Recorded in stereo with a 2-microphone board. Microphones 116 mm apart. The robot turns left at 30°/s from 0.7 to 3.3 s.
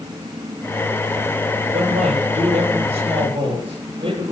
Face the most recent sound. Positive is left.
turn(degrees=-120)